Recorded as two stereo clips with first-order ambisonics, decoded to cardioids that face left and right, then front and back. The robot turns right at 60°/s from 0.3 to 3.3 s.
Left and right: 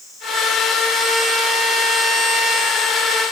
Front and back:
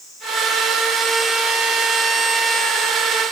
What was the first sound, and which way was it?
Only background noise.